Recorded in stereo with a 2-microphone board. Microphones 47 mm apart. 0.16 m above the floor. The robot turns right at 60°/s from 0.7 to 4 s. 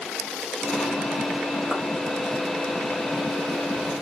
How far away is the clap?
About 6 m.